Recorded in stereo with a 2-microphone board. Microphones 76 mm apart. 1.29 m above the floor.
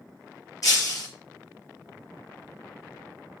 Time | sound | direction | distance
0.6 | breaking glass | 50° left (ahead or behind) | 5.5 m